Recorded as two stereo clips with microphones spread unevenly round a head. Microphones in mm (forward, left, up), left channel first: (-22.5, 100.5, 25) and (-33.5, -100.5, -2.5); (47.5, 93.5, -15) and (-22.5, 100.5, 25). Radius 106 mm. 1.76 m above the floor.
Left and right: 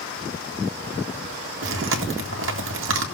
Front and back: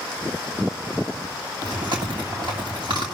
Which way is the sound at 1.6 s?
120° right.